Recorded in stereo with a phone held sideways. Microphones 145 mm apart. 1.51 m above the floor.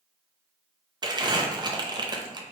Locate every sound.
1.0 s crumpling: 30° right (ahead or behind), 0.5 m